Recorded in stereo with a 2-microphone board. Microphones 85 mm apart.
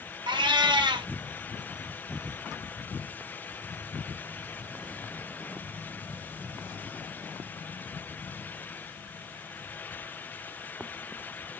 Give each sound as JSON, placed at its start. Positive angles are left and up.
{"t": 0.3, "sound": "a cat meowing", "side_deg": -75, "distance_m": 0.5}